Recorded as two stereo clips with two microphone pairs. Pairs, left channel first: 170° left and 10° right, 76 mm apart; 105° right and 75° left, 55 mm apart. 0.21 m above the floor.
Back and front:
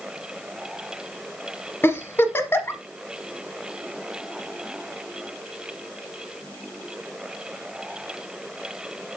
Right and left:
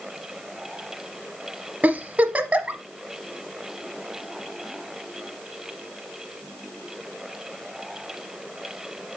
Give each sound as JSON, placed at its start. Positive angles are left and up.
{"t": 1.8, "sound": "a giggle", "azimuth_deg": 125, "distance_m": 1.0}